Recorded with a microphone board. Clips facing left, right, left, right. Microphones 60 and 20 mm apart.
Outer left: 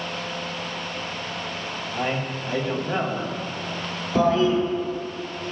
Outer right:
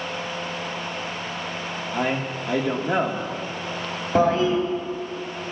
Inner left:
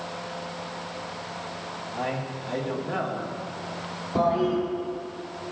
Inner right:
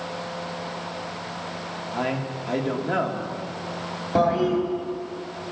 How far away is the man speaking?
About 1.5 m.